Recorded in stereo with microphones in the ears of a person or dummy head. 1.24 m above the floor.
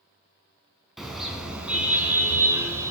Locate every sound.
1.0 s a car horn: centre (ahead or behind), 4.5 m; by 2.9 s 15° right (ahead or behind), 5 m